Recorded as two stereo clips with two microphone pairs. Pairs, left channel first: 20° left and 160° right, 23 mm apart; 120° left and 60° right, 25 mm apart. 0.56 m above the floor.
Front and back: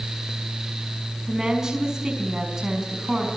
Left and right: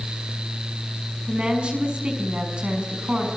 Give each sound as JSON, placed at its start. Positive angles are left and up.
{"t": 1.3, "sound": "a woman speaking", "azimuth_deg": -100, "distance_m": 5.5}